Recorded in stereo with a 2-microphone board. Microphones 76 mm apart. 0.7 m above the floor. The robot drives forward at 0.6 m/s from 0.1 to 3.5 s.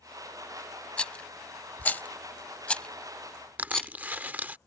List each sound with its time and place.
1.0 s a rattle: 15° left (ahead or behind); by 3.9 s 10° left (ahead or behind)
3.6 s crushing: 20° right (ahead or behind)